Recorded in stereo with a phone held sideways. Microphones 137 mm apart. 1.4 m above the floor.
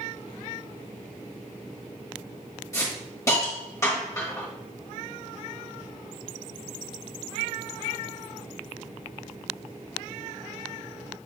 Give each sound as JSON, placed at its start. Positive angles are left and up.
{"t": 2.7, "sound": "a hiss", "side_deg": 25, "distance_m": 1.1}